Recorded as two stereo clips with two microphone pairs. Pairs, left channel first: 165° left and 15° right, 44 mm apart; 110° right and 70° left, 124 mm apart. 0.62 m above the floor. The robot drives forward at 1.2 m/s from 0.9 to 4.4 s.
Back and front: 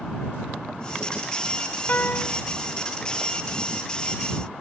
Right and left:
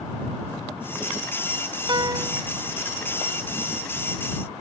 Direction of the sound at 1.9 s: 120° left.